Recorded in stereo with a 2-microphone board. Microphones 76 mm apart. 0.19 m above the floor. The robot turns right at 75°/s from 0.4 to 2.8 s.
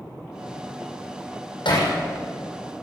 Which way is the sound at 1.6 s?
80° left.